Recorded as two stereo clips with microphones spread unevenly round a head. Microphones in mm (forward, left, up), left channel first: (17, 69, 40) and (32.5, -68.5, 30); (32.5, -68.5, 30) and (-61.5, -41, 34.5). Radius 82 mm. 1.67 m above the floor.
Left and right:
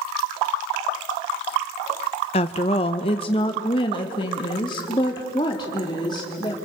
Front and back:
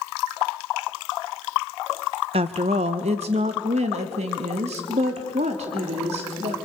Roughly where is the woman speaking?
Behind left.